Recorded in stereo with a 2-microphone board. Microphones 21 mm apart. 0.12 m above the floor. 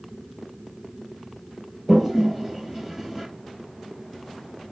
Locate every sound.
1.9 s a toilet flushing: 25° right (ahead or behind), 3 m